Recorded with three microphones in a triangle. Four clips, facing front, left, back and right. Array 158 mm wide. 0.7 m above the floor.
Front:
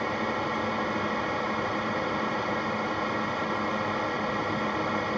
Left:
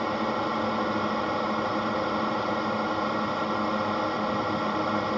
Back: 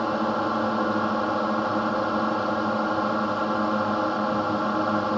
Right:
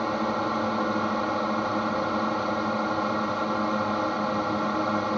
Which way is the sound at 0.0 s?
170° right.